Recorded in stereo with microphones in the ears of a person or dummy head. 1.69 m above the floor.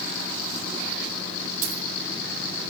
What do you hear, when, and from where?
1.6 s a dropped coin: 45° right (ahead or behind), 6 m